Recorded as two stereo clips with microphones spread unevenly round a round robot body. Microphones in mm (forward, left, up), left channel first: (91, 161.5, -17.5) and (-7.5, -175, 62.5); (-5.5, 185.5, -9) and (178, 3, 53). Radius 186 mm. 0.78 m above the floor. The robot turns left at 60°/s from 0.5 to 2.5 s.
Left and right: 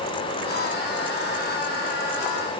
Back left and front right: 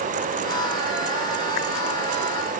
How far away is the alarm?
I don't hear an alarm.